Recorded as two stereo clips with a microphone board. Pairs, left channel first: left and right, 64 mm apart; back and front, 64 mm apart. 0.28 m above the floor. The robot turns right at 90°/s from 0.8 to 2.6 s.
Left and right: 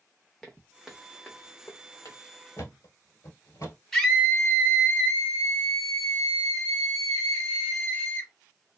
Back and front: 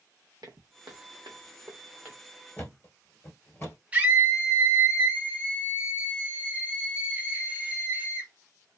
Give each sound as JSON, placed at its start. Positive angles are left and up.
{"t": 0.4, "sound": "footsteps", "azimuth_deg": 15, "distance_m": 0.8}
{"t": 2.6, "sound": "a thud", "azimuth_deg": 125, "distance_m": 1.3}
{"t": 3.9, "sound": "a scream", "azimuth_deg": 15, "distance_m": 0.9}